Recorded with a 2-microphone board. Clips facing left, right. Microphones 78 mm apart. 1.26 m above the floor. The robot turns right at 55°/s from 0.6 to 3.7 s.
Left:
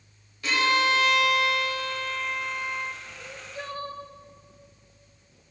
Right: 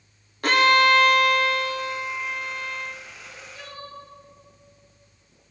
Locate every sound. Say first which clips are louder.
0.4 s a violin: right 6 dB; 95° right, 0.5 m; by 3.0 s 30° left, 0.5 m
3.2 s crying: left 4 dB; 45° left (ahead or behind), 0.7 m; by 4.0 s 30° left (ahead or behind), 0.7 m